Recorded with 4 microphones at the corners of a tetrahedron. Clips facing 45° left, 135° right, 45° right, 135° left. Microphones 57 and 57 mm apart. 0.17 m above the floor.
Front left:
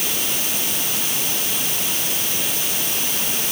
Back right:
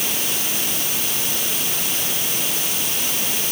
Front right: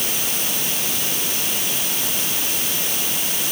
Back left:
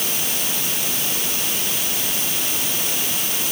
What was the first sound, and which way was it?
Only background noise.